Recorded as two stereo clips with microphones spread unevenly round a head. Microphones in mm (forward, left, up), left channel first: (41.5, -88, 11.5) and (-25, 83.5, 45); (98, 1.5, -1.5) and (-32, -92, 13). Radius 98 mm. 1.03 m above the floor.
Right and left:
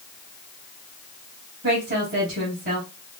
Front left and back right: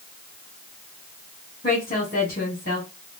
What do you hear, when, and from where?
1.6 s a woman speaking: 75° left, 1.9 m